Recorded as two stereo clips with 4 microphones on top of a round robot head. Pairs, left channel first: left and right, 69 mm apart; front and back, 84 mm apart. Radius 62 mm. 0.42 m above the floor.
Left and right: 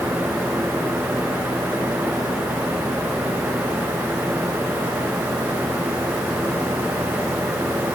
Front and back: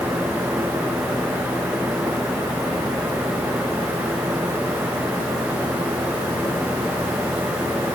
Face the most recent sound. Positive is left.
No sound to turn to.